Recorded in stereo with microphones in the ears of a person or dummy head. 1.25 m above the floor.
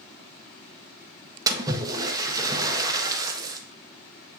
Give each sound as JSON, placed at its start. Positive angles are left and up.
{"t": 1.5, "sound": "a splash", "side_deg": -25, "distance_m": 1.2}